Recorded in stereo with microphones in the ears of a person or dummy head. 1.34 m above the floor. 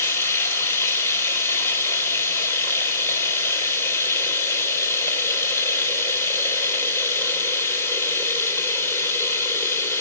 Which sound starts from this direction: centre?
Running water, at 0.0 s.